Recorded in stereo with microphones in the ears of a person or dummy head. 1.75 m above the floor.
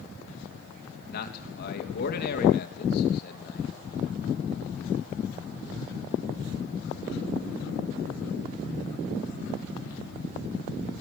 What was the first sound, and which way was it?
A man speaking, 55° left (ahead or behind).